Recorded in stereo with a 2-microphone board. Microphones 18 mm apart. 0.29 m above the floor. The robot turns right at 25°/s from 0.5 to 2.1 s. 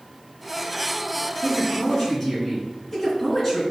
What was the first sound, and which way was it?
A man speaking, 40° left (ahead or behind).